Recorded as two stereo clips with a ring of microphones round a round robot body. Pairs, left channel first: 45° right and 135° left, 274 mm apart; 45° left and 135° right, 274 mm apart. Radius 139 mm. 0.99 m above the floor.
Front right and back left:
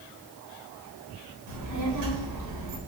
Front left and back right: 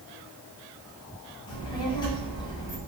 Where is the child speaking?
120° left, 4 m.